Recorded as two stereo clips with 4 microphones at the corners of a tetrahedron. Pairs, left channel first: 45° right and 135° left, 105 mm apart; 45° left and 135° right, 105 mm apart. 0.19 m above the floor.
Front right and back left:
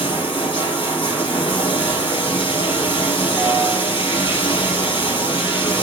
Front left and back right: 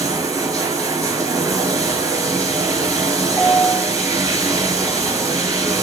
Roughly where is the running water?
Right.